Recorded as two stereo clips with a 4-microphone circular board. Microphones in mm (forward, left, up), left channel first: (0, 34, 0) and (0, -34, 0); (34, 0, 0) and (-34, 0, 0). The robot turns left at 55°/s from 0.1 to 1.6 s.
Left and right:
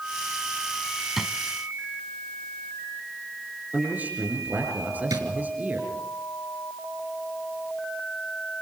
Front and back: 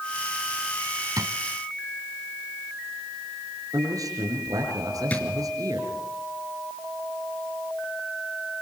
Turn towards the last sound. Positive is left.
turn(degrees=-65)